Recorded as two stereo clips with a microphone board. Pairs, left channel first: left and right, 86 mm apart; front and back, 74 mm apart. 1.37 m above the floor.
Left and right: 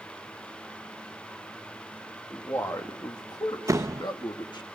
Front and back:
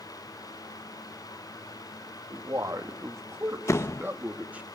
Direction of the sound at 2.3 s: 145° left.